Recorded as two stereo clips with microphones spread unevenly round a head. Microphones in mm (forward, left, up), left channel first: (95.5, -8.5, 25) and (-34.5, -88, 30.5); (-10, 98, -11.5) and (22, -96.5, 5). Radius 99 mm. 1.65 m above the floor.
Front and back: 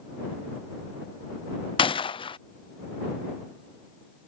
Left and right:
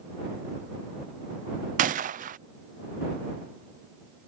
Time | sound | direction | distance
1.8 | a gunshot | 30° right | ?